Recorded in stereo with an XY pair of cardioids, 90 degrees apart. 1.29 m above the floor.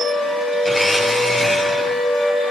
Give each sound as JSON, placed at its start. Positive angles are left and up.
{"t": 0.7, "sound": "a blender", "azimuth_deg": 5, "distance_m": 6.5}